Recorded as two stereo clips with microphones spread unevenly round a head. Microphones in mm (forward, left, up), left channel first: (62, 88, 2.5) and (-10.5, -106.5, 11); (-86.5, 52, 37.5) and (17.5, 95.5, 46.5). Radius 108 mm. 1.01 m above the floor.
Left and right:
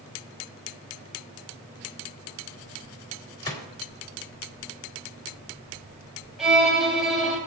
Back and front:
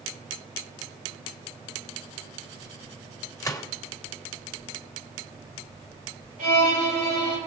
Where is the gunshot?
140° left, 1.6 m.